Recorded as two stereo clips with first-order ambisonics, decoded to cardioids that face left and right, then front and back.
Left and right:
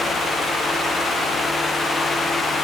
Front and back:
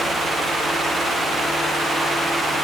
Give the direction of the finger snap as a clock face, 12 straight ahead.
I don't hear a finger snap.